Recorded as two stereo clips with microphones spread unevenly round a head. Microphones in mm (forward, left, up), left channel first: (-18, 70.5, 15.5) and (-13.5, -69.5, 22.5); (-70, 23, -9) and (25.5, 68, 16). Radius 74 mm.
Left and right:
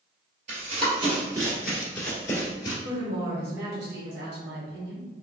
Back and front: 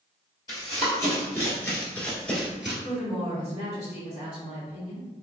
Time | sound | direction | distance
0.5 | running footsteps | 85° right | 1.7 m
2.8 | a woman speaking | 95° right | 1.8 m